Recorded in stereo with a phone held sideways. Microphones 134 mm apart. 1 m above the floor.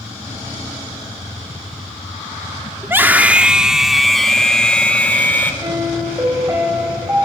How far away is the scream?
About 2.0 m.